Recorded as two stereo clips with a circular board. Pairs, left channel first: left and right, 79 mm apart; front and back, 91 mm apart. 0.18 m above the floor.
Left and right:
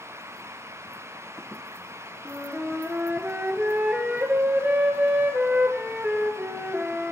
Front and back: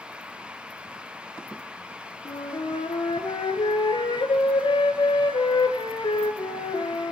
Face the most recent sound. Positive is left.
turn(degrees=-20)